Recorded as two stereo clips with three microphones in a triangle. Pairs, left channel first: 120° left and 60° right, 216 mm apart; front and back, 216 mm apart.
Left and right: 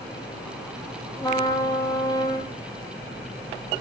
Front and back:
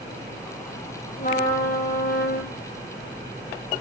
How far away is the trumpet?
About 4 m.